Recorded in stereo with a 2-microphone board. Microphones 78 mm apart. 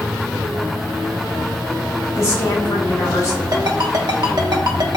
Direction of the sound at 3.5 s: 60° right (ahead or behind).